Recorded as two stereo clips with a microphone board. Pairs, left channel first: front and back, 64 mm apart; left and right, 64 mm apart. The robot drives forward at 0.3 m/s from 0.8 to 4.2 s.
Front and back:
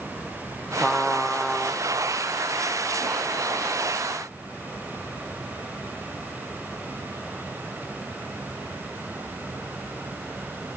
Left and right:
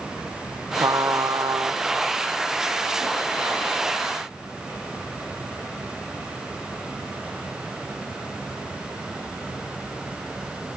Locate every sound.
0.8 s a trumpet: 80° right, 1.1 m; by 1.8 s 100° right, 1.1 m